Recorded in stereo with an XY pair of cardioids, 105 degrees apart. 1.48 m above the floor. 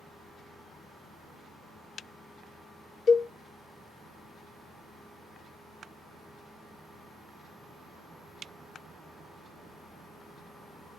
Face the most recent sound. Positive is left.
turn(degrees=55)